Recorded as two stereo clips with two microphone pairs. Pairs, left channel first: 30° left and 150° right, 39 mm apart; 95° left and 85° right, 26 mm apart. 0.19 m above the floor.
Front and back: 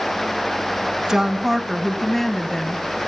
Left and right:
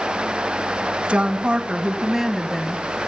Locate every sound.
1.1 s a woman speaking: 85° right, 1.4 m; by 3.1 s 60° left, 1.1 m